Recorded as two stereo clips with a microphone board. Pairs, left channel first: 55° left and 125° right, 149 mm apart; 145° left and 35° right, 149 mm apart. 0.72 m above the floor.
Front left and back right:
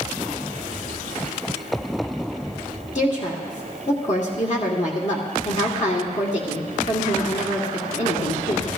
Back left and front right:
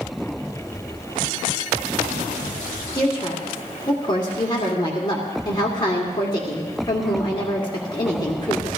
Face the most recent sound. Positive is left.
turn(degrees=90)